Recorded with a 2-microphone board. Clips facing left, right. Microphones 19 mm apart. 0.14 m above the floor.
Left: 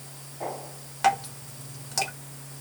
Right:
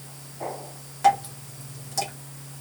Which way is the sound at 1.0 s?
30° left (ahead or behind).